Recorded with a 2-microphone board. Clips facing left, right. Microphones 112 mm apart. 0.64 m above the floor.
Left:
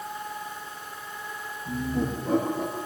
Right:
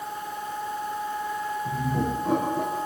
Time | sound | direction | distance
1.6 | laughter | 75° right (ahead or behind) | 8.5 m